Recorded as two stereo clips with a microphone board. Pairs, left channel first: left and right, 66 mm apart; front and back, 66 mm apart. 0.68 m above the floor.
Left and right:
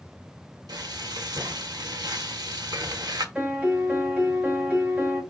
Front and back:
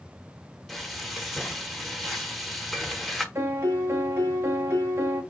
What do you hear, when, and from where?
0.7 s frying: 95° right, 0.9 m
3.4 s a piano: 150° right, 1.0 m